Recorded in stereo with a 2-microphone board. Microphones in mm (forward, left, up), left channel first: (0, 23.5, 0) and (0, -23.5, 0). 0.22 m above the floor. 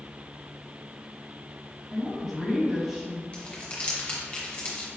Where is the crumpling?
25° left (ahead or behind), 1.3 m.